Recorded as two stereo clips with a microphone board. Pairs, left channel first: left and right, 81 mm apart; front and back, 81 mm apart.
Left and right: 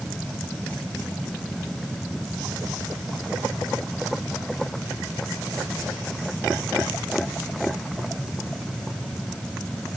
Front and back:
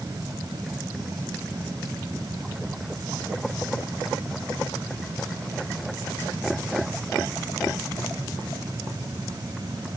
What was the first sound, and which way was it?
Only background noise.